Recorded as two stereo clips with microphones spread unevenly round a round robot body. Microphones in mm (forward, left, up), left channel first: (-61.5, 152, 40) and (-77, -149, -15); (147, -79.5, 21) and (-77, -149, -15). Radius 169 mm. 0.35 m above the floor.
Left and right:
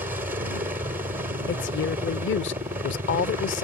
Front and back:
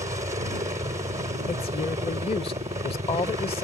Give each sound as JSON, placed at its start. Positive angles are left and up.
{"t": 0.0, "sound": "a helicopter", "azimuth_deg": -140}
{"t": 1.5, "sound": "a woman speaking", "azimuth_deg": 75}